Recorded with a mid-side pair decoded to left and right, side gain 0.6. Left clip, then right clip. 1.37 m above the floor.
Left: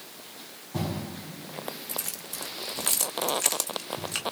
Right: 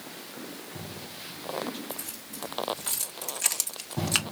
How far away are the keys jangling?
About 1.5 m.